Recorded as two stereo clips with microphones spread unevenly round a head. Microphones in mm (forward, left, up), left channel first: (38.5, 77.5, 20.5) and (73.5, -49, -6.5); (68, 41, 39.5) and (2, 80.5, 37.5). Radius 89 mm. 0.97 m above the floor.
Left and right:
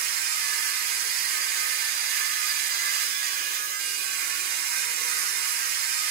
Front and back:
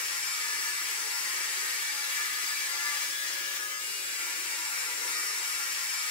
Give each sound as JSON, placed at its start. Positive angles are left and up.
{"t": 0.0, "sound": "a machine running", "azimuth_deg": -75, "distance_m": 1.1}